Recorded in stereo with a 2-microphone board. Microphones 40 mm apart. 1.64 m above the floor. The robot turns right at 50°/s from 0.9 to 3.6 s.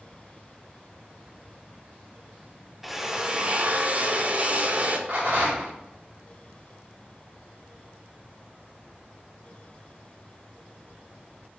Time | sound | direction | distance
2.8 | a drill | 175° right | 0.6 m
5.1 | a rattle | 60° right (ahead or behind) | 3 m